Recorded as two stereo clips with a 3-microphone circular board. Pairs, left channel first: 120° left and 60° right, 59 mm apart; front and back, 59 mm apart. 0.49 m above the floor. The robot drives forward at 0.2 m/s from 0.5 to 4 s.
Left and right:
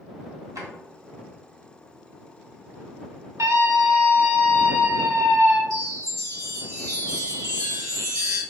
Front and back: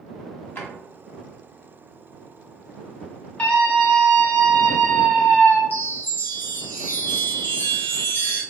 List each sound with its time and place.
0.6 s a drawer: 55° right, 1.3 m
3.4 s a scream: 65° right, 1.8 m
5.7 s a chime: 55° right, 1.0 m